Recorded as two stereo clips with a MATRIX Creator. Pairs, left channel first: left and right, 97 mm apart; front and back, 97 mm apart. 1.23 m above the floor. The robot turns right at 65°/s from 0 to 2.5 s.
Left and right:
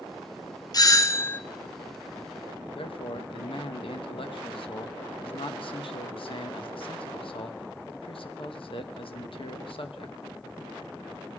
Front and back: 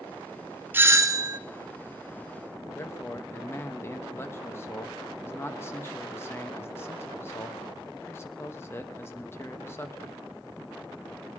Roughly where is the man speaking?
Ahead left.